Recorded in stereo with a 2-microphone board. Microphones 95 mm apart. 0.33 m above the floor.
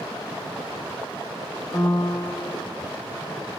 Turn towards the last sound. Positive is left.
turn(degrees=30)  # may be behind; listen again after turning